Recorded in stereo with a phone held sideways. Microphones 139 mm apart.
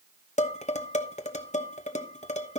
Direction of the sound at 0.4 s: 55° left (ahead or behind).